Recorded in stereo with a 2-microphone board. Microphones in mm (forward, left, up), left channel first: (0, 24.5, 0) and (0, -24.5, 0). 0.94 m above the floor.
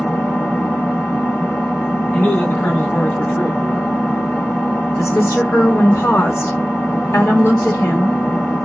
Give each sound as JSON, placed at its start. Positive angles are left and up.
{"t": 0.0, "sound": "an engine running", "side_deg": 50, "distance_m": 1.5}
{"t": 2.1, "sound": "a man speaking", "side_deg": 50, "distance_m": 1.9}
{"t": 5.0, "sound": "a woman speaking", "side_deg": 70, "distance_m": 1.5}